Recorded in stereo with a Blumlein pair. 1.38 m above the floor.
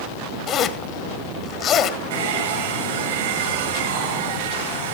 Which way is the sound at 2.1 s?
60° right.